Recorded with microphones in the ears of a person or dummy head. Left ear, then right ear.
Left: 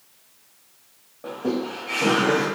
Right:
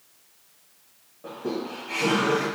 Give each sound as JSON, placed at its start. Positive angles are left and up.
{"t": 1.2, "sound": "laughter", "side_deg": 75, "distance_m": 2.0}